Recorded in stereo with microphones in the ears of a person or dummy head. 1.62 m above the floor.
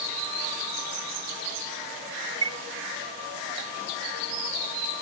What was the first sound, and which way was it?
A chime, 20° right (ahead or behind).